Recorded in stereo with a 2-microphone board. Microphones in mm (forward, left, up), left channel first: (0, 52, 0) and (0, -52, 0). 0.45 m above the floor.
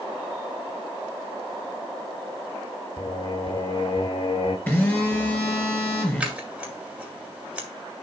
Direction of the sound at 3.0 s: 55° left (ahead or behind).